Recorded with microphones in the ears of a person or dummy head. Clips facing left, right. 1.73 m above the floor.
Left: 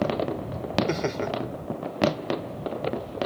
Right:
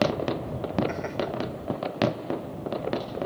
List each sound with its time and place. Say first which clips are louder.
0.9 s laughter: left 3 dB; 55° left (ahead or behind)